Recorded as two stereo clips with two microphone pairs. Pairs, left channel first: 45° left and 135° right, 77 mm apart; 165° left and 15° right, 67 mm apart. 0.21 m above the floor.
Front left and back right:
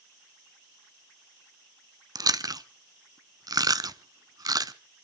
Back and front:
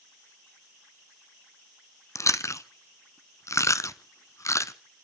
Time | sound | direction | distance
2.1 | chewing | 160° right | 0.6 m